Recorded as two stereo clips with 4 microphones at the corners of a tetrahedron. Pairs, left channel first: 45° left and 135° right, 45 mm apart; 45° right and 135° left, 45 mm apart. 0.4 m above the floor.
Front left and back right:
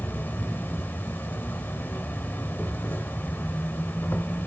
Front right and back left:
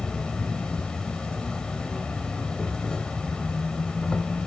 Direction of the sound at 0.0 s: 25° left.